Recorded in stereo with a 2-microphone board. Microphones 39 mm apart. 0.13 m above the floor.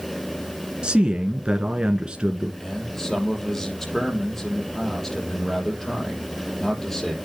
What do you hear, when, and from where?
0.8 s a man speaking: 20° right (ahead or behind), 1.6 m
2.6 s a man speaking: 15° left (ahead or behind), 5 m